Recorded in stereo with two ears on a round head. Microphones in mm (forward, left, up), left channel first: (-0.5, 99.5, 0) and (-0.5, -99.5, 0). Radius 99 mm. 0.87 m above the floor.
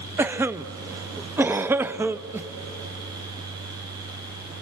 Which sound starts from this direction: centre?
A cough, at 0.2 s.